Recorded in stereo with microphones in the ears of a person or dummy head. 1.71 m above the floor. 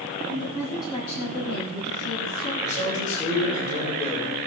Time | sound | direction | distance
0.3 | a woman speaking | 15° left (ahead or behind) | 2.5 m
2.6 | a man speaking | 45° left (ahead or behind) | 6 m